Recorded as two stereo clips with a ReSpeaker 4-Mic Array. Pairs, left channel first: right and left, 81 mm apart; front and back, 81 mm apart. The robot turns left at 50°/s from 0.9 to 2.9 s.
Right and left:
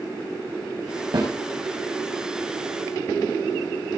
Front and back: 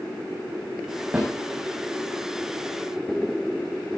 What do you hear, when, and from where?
1.1 s a snare drum: 110° left, 6.5 m; by 1.3 s 100° left, 6.5 m